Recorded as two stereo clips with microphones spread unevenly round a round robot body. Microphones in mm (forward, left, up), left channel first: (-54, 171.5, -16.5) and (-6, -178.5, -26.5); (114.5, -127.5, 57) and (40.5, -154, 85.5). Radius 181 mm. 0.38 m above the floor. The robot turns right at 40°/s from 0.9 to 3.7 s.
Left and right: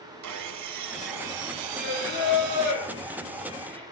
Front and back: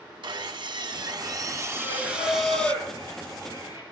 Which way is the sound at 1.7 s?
105° left.